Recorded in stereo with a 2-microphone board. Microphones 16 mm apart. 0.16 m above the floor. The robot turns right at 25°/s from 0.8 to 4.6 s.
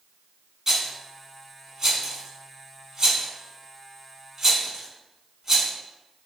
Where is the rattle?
20° right (ahead or behind), 0.6 m; by 5.7 s 25° right (ahead or behind), 0.6 m.